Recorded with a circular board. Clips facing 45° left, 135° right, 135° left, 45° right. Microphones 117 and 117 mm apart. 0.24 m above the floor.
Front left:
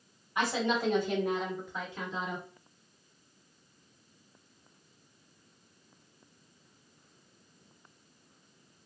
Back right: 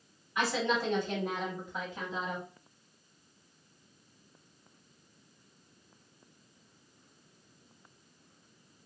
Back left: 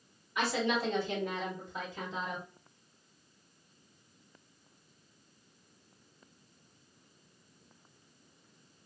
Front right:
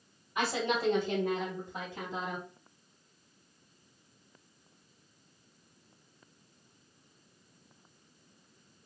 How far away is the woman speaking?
About 1.3 m.